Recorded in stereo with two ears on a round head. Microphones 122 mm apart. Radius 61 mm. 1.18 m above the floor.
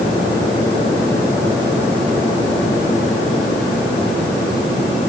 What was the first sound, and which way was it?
Only background noise.